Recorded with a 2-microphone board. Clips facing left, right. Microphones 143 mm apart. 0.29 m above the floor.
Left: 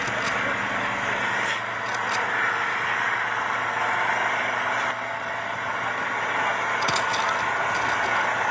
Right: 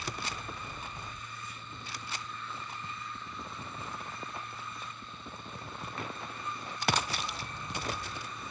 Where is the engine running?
80° left.